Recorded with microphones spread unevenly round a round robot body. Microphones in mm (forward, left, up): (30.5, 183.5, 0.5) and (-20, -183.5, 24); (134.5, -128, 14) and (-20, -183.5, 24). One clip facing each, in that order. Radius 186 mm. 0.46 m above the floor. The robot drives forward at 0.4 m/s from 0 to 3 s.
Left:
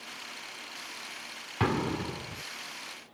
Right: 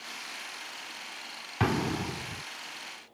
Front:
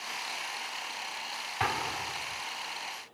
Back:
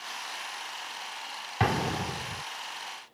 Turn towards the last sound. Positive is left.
turn(degrees=180)